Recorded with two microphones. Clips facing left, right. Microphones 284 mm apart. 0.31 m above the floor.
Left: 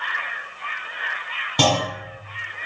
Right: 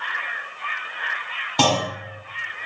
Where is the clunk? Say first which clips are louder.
Even; 15° left (ahead or behind), 2.5 m.